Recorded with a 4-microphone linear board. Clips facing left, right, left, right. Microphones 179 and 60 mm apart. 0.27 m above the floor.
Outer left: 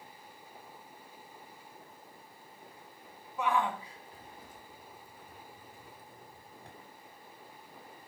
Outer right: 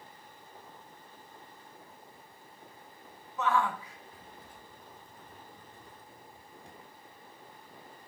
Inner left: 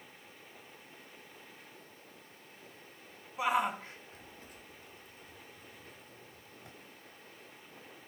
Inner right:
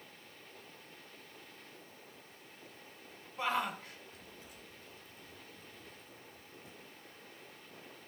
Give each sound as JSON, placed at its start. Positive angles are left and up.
{"t": 3.4, "sound": "a shout", "side_deg": 10, "distance_m": 1.6}